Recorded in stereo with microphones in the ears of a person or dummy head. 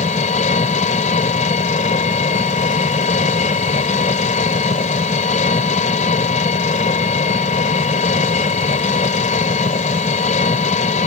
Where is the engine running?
40° left (ahead or behind).